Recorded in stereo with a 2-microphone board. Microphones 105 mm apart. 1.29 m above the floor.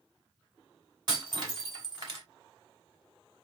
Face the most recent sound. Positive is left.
turn(degrees=-45)  # may be behind; listen again after turning